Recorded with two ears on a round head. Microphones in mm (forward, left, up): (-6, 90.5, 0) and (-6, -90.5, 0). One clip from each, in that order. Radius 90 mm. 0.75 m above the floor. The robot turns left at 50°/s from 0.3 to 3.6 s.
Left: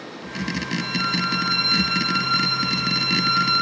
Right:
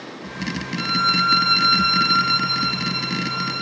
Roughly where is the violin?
Right.